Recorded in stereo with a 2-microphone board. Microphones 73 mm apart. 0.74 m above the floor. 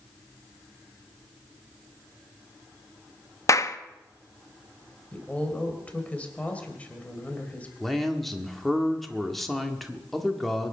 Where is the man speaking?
Centre (ahead or behind), 1.6 m.